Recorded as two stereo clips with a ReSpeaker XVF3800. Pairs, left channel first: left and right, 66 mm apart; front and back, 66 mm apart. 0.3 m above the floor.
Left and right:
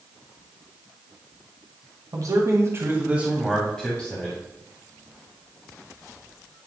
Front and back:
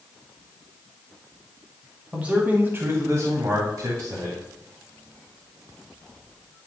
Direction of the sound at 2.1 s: 105° right.